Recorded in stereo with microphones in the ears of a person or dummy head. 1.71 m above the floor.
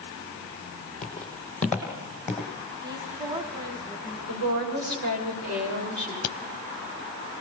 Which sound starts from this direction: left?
A crack, at 6.2 s.